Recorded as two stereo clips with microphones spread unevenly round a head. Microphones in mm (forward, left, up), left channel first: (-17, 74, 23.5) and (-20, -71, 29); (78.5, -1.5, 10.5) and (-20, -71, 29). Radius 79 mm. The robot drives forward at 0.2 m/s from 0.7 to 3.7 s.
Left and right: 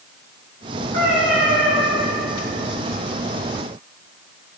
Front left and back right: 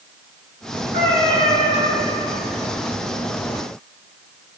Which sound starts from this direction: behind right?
A cat meowing, at 0.9 s.